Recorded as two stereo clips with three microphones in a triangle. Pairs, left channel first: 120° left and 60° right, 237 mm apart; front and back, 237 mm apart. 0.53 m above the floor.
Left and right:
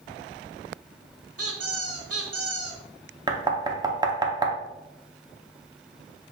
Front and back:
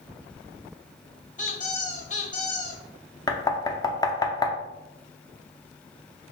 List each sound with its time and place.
1.4 s a squeak: 55° right, 1.1 m
3.3 s knocking: 35° right, 0.6 m